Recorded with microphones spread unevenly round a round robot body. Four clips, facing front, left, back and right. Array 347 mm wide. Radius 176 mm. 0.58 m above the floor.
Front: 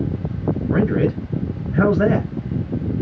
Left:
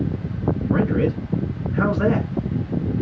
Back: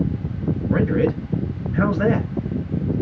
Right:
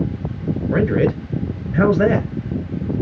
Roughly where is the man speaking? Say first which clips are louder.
Right 4 dB, even; ahead right.